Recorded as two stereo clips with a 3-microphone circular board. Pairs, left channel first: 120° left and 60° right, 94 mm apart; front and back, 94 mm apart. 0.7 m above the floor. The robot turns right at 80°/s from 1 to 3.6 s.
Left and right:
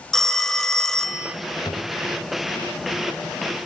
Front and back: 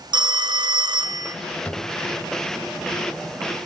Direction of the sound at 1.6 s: 75° left.